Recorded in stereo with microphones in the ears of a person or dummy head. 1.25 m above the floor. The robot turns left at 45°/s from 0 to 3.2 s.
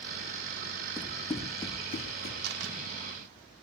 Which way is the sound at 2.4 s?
60° right (ahead or behind).